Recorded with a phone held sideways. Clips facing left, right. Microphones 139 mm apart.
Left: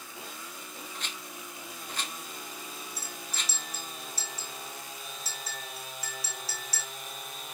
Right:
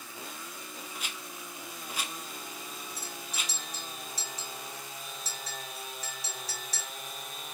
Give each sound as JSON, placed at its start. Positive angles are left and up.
{"t": 0.9, "sound": "a rattle", "side_deg": -10, "distance_m": 0.5}
{"t": 3.0, "sound": "a clink", "side_deg": 0, "distance_m": 3.0}